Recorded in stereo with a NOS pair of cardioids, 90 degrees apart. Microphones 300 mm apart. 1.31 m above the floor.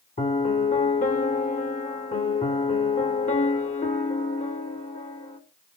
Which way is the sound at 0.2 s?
25° left.